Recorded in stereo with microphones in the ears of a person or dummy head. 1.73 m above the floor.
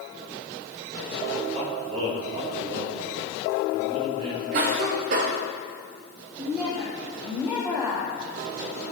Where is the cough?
50° right (ahead or behind), 0.9 m.